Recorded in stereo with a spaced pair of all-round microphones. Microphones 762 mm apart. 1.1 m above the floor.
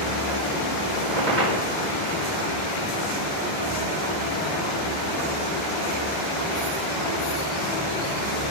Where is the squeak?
75° right (ahead or behind), 4 m.